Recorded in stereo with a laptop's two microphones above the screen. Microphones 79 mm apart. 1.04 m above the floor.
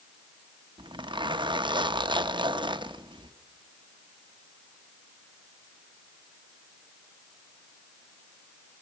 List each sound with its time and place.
0.8 s a zipper: 90° right, 0.7 m